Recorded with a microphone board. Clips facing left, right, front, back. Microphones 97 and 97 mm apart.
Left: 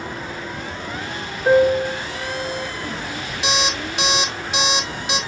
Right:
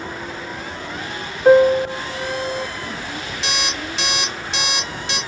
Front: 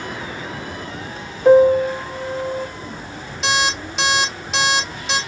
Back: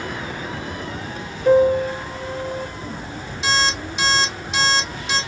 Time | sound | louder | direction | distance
1.4 | a piano | right 3 dB, front 4 dB | 30° right | 0.9 m
3.4 | an alarm clock | left 4 dB, front 1 dB | 15° left | 1.6 m